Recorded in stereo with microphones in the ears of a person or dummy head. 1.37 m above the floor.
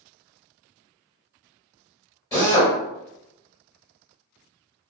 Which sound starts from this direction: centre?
A drill, at 2.3 s.